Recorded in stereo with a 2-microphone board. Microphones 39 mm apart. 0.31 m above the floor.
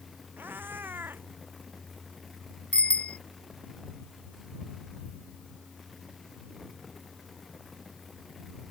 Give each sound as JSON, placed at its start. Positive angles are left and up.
{"t": 0.4, "sound": "a cat meowing", "side_deg": -55}
{"t": 2.7, "sound": "a bicycle bell", "side_deg": 30}